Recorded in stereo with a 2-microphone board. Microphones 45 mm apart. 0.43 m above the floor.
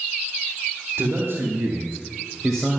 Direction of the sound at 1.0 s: 50° right (ahead or behind).